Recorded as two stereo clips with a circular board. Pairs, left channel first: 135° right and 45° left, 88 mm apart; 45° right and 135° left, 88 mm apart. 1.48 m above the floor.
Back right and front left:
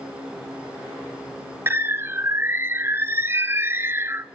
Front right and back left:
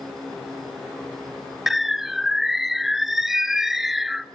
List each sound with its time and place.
1.7 s a bird: 50° left, 0.6 m